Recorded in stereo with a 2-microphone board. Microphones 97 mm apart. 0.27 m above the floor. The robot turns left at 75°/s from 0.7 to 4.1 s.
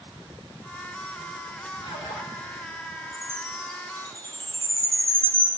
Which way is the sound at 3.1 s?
10° right (ahead or behind).